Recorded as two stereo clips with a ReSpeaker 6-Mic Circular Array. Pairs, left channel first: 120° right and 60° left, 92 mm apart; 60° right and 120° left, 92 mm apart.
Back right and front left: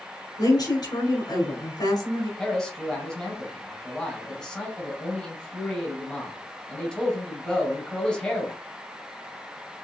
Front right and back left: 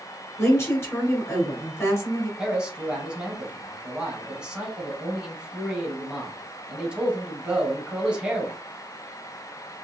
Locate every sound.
0.4 s a woman speaking: 110° right, 1.3 m
2.4 s a man speaking: straight behind, 1.0 m